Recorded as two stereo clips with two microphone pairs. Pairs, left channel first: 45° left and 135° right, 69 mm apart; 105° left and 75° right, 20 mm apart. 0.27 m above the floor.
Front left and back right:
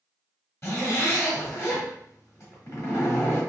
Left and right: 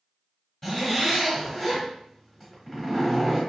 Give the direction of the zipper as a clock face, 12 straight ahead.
11 o'clock.